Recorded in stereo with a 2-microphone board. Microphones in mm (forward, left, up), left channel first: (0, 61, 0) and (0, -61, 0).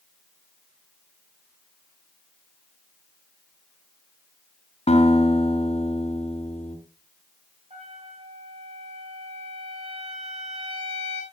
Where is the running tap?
I don't hear a running tap.